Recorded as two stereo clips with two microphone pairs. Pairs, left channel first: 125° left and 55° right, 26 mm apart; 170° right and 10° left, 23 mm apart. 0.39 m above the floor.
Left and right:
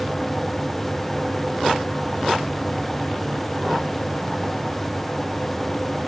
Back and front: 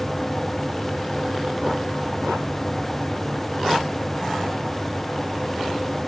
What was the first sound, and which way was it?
Only background noise.